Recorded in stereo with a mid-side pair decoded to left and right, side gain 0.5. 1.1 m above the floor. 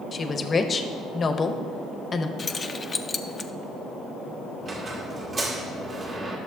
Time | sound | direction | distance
0.1 | a woman speaking | 35° left | 0.8 m
2.4 | keys jangling | 30° left | 0.5 m
4.6 | a squeak | 35° right | 1.8 m